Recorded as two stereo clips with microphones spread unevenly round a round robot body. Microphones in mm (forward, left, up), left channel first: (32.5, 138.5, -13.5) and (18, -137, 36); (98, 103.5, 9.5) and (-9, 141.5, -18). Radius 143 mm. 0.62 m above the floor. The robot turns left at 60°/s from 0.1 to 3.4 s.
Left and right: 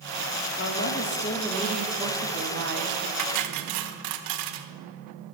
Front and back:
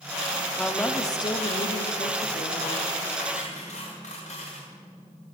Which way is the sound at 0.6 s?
75° left.